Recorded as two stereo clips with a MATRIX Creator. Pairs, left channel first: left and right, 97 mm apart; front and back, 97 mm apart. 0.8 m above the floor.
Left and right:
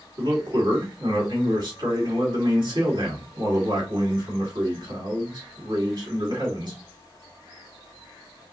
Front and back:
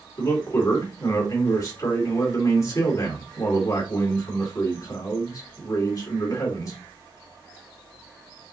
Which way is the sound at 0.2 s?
55° right.